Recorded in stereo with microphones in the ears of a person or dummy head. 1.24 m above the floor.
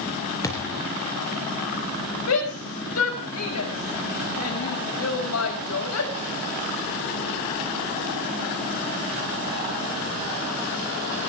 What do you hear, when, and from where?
0.4 s a thud: 15° left (ahead or behind), 4 m
2.3 s a shout: 90° left, 5.5 m